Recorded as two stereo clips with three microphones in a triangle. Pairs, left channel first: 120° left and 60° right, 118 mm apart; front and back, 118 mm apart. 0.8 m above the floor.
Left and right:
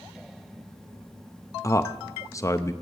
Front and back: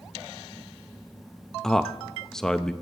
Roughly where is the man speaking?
Left.